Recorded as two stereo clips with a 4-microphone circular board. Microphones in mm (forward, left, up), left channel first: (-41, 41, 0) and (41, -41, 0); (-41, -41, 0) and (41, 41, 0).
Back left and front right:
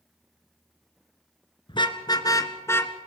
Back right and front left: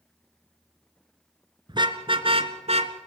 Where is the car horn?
95° left, 2 m; by 2.9 s 65° left, 1.8 m.